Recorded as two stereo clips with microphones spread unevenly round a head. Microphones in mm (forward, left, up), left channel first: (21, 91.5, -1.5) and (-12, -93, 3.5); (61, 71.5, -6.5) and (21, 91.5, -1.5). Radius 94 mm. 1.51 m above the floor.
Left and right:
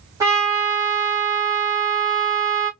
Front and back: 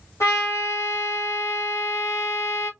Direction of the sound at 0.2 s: 30° right.